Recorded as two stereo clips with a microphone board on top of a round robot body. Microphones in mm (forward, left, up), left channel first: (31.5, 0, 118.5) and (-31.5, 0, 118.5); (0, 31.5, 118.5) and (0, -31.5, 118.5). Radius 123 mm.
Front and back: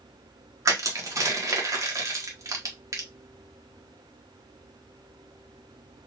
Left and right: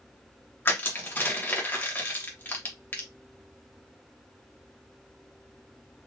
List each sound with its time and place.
0.7 s crushing: 145° left, 1.5 m